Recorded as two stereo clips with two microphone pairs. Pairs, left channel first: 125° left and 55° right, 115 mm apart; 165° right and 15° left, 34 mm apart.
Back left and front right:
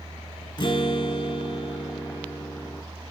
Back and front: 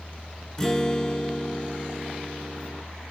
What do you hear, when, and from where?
0.6 s a guitar: 125° left, 0.6 m